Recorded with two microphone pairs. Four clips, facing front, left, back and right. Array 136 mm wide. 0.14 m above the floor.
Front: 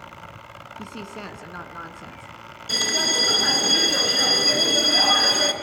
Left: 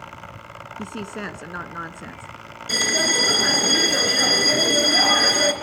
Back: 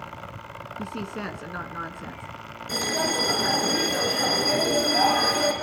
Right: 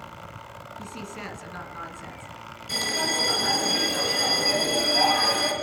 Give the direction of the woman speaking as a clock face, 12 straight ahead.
9 o'clock.